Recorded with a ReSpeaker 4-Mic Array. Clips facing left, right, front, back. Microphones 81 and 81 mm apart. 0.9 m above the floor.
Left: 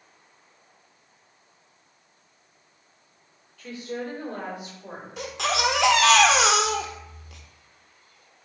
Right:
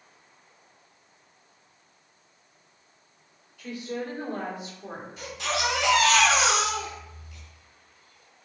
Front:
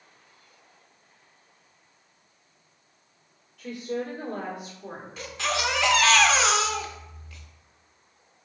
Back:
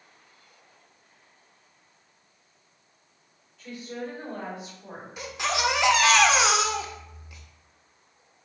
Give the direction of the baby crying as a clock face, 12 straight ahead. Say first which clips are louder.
Left 4 dB, back 1 dB; 9 o'clock.